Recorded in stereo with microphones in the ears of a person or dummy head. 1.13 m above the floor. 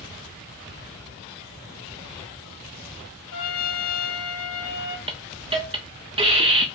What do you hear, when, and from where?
3.3 s a trumpet: 75° left (ahead or behind), 1.2 m
5.1 s a hiss: 35° right (ahead or behind), 0.5 m